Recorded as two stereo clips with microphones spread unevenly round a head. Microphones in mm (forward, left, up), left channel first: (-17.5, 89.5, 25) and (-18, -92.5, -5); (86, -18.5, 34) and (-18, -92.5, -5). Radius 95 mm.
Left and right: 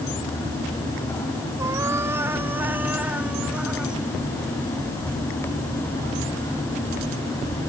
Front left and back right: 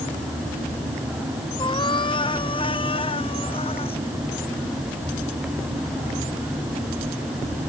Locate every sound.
1.6 s a cat meowing: 10° right; by 4.0 s straight ahead